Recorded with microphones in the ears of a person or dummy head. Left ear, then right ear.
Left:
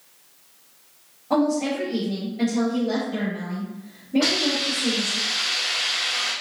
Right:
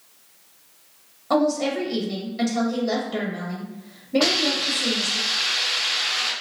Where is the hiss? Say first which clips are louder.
Right 1 dB; 55° right (ahead or behind), 0.8 m.